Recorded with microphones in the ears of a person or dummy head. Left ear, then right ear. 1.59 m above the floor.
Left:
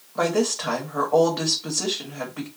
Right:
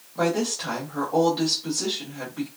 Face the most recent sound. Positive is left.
turn(degrees=55)  # may be behind; listen again after turning